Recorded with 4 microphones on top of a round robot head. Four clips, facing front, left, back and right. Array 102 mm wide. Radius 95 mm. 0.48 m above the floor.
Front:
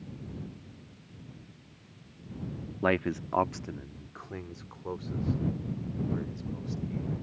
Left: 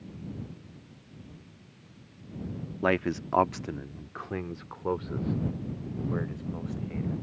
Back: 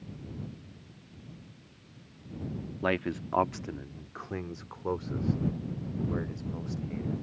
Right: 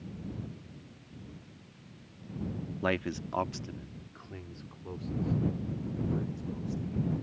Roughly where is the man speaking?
Ahead left.